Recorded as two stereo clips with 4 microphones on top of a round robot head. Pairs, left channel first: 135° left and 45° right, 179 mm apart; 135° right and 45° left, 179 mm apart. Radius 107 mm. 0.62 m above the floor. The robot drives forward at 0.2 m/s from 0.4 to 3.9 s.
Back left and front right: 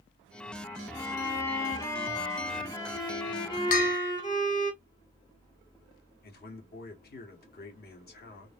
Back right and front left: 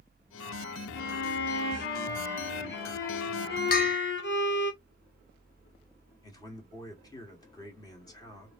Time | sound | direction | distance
0.9 | a violin | 145° right | 1.2 m
3.7 | a bell | straight behind | 0.9 m
6.2 | a man speaking | 155° left | 1.8 m